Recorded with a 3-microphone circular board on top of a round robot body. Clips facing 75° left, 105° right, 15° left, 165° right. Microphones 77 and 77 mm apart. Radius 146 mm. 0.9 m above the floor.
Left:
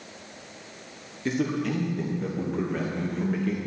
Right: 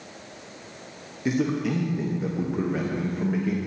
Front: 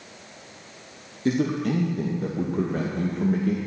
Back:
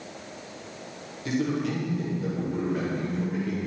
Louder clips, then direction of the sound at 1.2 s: Right 2 dB, front 4 dB; 25° right.